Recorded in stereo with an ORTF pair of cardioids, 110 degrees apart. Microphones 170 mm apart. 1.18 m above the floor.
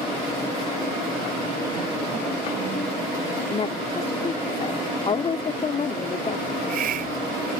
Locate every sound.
3.5 s a woman speaking: 30° left
6.5 s a hiss: 60° right